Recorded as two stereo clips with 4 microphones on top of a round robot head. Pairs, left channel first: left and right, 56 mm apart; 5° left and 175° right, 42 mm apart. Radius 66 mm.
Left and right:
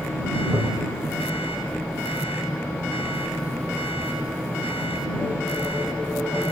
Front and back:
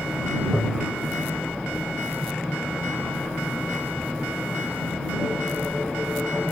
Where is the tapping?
115° right.